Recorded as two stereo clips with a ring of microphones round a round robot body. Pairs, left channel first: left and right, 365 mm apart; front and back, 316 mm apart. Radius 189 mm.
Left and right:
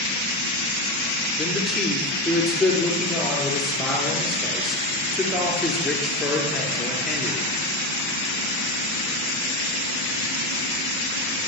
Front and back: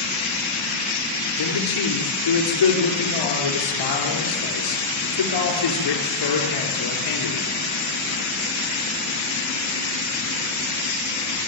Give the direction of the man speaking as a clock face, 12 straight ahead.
12 o'clock.